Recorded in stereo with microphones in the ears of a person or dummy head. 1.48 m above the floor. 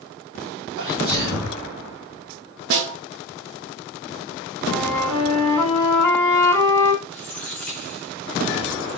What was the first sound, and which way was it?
A sneeze, 45° right (ahead or behind).